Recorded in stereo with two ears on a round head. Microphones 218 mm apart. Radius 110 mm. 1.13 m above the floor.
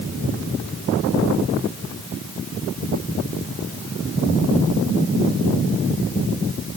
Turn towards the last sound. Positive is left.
No sound to turn to.